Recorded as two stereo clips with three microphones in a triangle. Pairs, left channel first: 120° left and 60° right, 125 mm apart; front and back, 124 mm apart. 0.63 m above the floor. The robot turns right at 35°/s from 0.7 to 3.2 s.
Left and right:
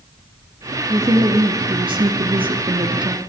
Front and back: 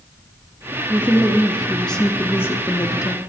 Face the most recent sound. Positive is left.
turn(degrees=-35)